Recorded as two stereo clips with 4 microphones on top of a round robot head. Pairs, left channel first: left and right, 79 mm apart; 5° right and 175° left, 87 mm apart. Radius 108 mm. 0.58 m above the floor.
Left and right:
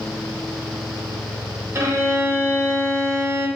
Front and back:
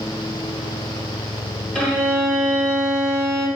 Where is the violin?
80° right, 1.2 m.